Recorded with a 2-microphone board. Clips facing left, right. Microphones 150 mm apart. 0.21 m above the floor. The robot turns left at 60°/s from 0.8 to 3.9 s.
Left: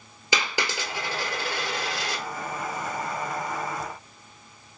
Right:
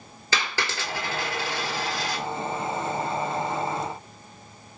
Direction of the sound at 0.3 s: 15° left (ahead or behind).